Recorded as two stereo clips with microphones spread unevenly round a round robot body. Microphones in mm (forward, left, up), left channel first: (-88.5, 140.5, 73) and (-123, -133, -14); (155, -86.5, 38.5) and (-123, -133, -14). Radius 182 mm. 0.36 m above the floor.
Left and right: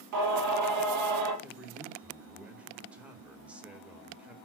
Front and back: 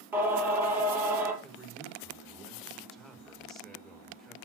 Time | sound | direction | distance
0.1 | singing | 90° right | 4.5 m
1.4 | a man speaking | 105° right | 1.5 m